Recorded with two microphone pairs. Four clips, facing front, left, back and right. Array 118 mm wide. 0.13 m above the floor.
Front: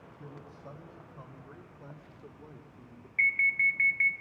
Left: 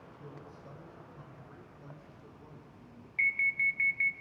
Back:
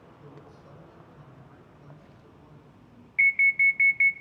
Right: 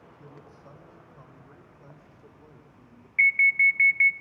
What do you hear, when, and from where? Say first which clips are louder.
0.2 s a man speaking: even, front 3 dB; 25° right, 5.5 m; by 3.1 s 35° right, 6.5 m
3.2 s an alarm: right 9 dB, back 5 dB; 85° right, 1.1 m